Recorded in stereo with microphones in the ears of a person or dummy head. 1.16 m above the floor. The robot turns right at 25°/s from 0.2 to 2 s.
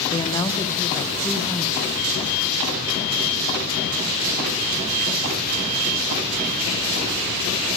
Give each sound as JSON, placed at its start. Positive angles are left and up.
{"t": 0.1, "sound": "a woman speaking", "azimuth_deg": 150, "distance_m": 0.7}